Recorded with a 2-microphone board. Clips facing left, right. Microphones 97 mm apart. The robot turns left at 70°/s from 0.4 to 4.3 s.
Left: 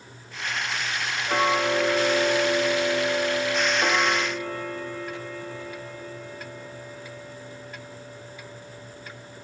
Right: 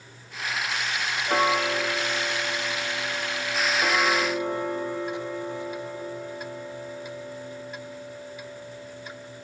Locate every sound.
1.3 s ticking: 170° right; by 9.5 s 20° right